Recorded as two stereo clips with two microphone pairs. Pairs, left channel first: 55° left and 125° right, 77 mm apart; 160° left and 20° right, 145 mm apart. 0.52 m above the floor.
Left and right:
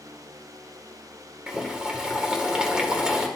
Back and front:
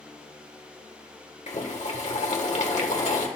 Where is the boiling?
160° left, 1.7 m.